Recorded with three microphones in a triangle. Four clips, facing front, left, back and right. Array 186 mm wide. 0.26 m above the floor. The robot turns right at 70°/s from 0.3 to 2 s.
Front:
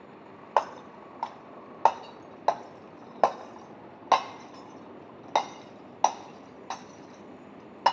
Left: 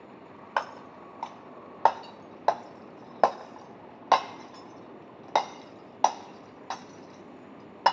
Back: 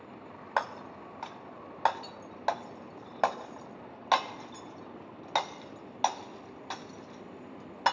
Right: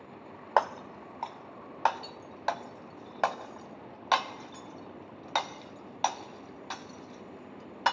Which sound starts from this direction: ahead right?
Breaking glass, at 0.6 s.